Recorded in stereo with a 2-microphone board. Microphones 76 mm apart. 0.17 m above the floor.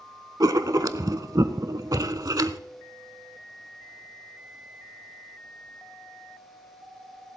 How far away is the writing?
About 0.6 m.